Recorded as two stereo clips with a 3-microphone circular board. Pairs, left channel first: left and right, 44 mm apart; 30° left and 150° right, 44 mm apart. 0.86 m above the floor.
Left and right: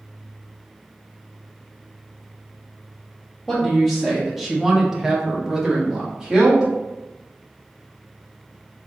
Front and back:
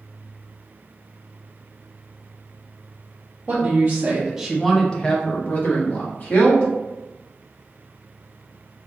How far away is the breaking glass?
No breaking glass in this recording.